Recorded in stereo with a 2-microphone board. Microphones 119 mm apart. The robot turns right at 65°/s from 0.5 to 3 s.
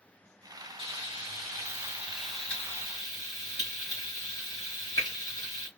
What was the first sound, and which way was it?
Frying, 95° right.